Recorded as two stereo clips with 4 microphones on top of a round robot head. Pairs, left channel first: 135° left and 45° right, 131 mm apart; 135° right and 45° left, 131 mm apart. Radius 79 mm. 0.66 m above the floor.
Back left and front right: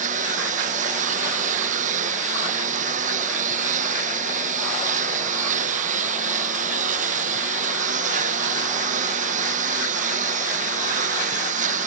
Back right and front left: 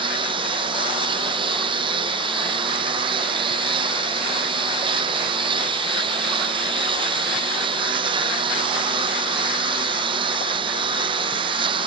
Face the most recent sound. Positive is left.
turn(degrees=-10)